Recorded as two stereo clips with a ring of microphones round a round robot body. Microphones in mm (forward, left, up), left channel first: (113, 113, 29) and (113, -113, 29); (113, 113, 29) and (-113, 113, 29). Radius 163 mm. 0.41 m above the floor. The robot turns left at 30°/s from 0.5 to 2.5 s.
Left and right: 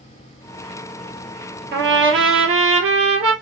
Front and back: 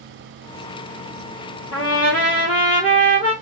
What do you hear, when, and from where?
1.7 s a trumpet: 50° right, 2 m; by 3.3 s 75° right, 2 m